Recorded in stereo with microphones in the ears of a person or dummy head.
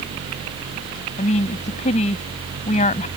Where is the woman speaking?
35° left (ahead or behind).